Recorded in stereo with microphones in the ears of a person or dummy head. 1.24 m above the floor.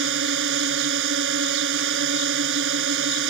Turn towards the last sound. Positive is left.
turn(degrees=-65)  # may be behind; listen again after turning